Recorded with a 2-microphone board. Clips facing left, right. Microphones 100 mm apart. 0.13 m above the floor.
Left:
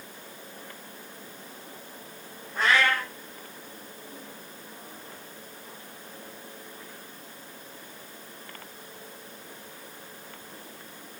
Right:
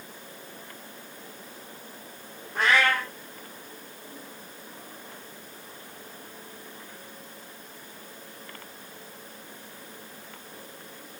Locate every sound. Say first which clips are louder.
2.5 s a cat meowing: right 1 dB; 65° right (ahead or behind), 1.4 m